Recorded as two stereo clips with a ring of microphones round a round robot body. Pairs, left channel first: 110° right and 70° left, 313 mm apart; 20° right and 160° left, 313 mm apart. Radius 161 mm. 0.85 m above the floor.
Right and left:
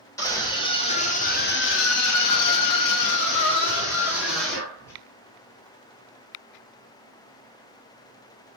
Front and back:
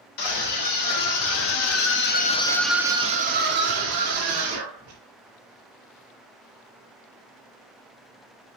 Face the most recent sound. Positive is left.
turn(degrees=-170)